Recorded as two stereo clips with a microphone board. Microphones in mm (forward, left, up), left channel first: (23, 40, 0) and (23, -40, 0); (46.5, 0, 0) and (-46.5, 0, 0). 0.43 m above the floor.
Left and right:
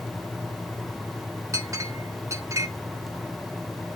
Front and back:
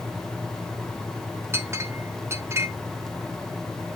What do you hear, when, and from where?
1.5 s a clink: 125° right, 1.0 m